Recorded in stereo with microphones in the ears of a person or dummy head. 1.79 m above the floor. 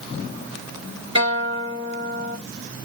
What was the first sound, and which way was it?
A guitar, 30° right (ahead or behind).